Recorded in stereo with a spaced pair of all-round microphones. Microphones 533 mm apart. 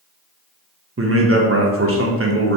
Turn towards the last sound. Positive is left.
turn(degrees=-25)  # may be behind; listen again after turning